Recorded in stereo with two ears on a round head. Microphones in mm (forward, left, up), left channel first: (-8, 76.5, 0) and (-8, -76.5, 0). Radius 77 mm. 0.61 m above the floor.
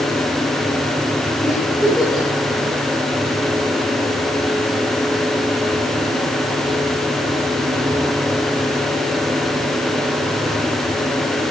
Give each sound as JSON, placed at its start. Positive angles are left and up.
{"t": 1.4, "sound": "a giggle", "side_deg": 5, "distance_m": 8.0}